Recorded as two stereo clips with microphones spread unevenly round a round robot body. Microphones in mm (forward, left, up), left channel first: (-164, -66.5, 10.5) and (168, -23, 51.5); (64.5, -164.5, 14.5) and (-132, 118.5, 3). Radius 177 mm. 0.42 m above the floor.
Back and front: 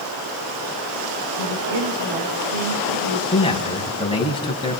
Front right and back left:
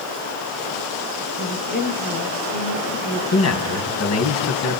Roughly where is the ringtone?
No ringtone in this recording.